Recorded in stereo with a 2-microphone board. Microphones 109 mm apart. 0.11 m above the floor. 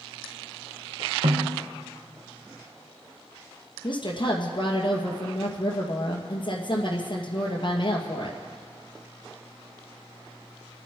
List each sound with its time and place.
1.2 s a snare drum: 80° right, 2.5 m
3.8 s a woman speaking: 50° left (ahead or behind), 2 m